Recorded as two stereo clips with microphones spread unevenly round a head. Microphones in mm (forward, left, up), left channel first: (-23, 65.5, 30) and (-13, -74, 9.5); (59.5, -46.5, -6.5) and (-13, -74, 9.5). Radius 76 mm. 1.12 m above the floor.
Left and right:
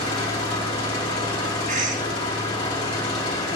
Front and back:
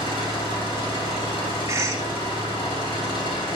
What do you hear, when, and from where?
0.0 s an engine running: 35° left, 2.5 m
1.7 s a cough: 105° right, 2 m